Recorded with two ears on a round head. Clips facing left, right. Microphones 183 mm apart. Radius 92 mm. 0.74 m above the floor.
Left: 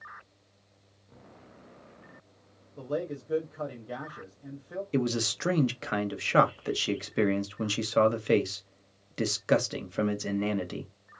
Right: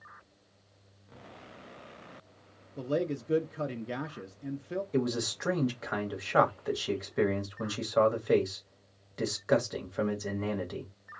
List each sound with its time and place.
2.8 s a man speaking: 30° right (ahead or behind), 0.5 m
4.9 s a man speaking: 35° left (ahead or behind), 0.9 m